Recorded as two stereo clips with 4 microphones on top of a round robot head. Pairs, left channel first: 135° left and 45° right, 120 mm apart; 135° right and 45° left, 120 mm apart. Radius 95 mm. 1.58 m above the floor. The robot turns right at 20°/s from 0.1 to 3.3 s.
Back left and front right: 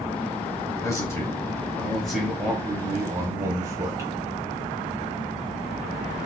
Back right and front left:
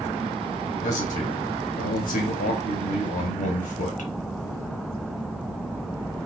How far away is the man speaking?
About 1.0 m.